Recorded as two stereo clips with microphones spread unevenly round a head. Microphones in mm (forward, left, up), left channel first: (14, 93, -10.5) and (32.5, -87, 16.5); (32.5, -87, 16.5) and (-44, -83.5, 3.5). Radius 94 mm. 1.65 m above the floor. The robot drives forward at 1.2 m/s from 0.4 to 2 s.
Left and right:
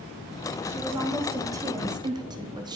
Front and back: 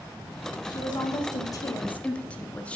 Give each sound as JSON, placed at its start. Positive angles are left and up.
{"t": 0.7, "sound": "a woman speaking", "azimuth_deg": -10, "distance_m": 1.9}